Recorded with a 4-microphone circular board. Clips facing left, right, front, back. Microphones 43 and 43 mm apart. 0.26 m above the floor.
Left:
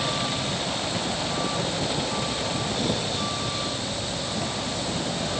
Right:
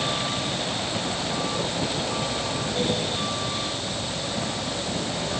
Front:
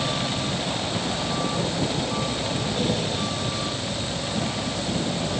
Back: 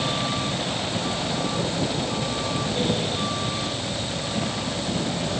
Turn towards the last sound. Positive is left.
No sound to turn to.